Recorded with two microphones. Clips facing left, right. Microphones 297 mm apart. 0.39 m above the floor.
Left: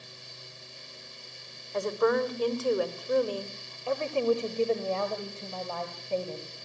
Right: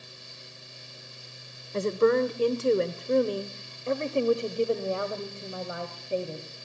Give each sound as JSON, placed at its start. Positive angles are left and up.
{"t": 1.7, "sound": "a woman speaking", "side_deg": -30, "distance_m": 1.3}